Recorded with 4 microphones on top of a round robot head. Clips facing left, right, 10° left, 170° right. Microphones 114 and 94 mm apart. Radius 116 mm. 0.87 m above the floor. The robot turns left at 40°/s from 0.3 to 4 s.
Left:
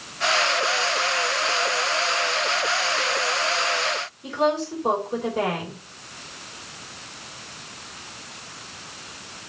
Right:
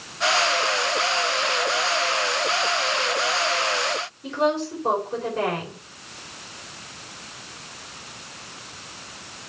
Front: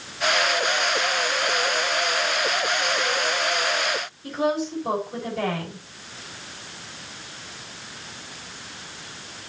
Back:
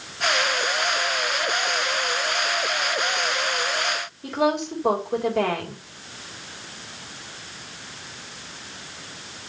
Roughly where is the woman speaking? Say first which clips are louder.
Even, back 2 dB; behind.